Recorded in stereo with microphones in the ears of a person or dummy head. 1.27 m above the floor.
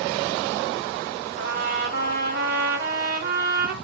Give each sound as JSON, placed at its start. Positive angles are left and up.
{"t": 1.4, "sound": "a trumpet", "side_deg": -55, "distance_m": 2.5}